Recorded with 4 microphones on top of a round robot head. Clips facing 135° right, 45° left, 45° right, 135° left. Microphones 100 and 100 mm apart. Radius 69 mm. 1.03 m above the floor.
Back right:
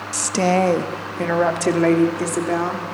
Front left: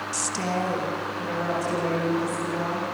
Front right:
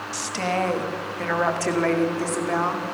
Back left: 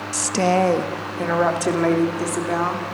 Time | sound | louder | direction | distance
0.1 | a woman speaking | back right 11 dB, back left 7 dB | 175° right | 1.0 m